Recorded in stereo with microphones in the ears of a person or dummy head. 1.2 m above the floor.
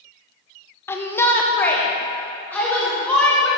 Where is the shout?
15° left (ahead or behind), 0.6 m; by 3.5 s 10° left (ahead or behind), 2.5 m.